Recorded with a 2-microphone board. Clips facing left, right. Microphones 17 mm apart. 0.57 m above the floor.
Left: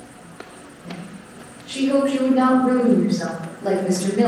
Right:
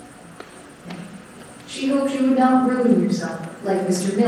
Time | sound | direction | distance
0.8 | a woman speaking | 25° left (ahead or behind) | 2.5 m